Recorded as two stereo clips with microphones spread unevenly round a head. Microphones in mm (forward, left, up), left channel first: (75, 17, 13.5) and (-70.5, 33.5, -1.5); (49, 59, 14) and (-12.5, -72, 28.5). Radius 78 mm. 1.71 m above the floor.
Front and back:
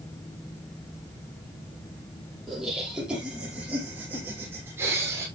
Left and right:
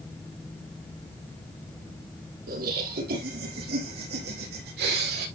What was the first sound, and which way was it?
Laughter, 100° right.